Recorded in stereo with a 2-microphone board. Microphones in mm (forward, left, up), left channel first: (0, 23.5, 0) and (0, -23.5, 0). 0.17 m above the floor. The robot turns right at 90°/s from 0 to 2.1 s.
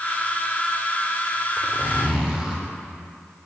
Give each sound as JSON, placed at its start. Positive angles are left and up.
{"t": 1.6, "sound": "a zipper", "azimuth_deg": -60, "distance_m": 1.4}